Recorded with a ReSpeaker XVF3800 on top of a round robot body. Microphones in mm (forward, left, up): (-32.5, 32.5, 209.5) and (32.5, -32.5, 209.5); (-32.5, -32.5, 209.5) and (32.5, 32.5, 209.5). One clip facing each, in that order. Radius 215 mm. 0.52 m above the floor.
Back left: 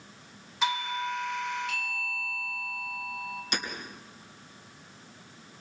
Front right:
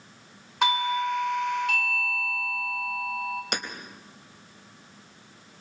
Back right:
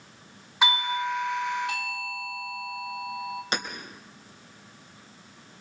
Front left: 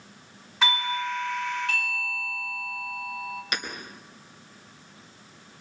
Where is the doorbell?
60° right, 3 m.